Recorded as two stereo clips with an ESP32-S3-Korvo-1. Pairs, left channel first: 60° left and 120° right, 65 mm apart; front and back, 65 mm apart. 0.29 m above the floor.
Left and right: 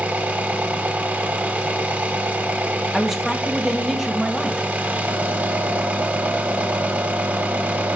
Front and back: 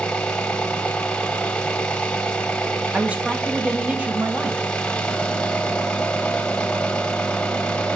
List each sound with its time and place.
0.0 s an engine running: 70° right, 0.9 m
2.9 s a man speaking: 155° left, 0.9 m